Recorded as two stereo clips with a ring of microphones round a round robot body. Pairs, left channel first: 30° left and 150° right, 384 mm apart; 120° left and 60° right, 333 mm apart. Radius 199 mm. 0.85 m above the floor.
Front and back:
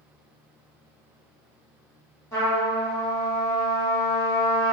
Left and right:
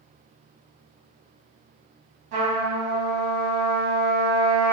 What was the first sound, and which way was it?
A trumpet, 50° right.